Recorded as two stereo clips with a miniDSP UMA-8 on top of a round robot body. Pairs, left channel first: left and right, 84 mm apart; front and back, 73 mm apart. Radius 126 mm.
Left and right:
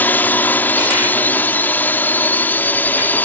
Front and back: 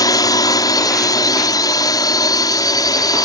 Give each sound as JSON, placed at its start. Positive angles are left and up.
{"t": 0.0, "sound": "a drone", "azimuth_deg": 20}